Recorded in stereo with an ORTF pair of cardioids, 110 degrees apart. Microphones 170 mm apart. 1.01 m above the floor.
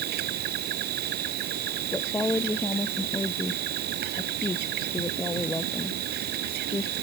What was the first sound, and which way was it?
An insect, 70° right.